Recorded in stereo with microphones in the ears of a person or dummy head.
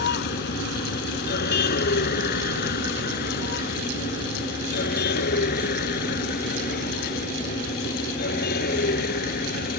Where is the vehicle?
50° left (ahead or behind).